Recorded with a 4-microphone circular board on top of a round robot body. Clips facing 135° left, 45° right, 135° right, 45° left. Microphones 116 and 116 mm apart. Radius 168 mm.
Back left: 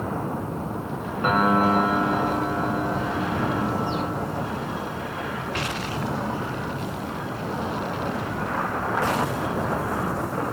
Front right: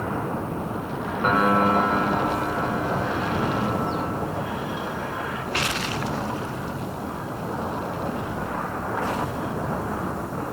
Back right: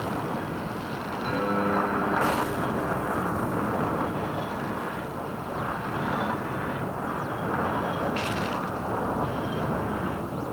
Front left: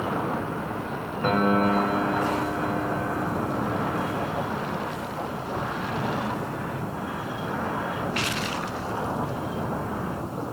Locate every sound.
1.2 s a piano: 50° left, 7 m